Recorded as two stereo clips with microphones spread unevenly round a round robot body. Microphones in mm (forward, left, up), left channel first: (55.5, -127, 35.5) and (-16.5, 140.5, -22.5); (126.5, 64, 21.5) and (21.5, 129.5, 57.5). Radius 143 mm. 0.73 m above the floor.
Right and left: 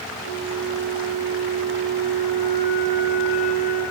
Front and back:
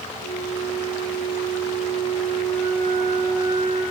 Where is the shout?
No shout in this recording.